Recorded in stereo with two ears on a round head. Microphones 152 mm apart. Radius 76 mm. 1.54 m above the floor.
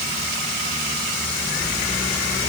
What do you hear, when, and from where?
Only background noise.